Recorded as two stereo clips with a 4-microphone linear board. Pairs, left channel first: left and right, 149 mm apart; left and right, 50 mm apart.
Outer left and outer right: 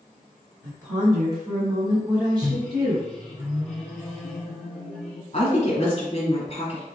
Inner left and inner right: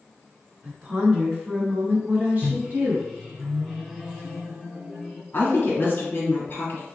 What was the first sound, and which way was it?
A woman speaking, 25° right (ahead or behind).